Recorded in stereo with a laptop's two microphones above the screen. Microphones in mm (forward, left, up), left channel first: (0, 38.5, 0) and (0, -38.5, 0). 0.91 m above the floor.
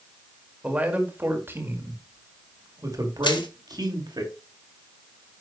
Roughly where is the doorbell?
No doorbell in this recording.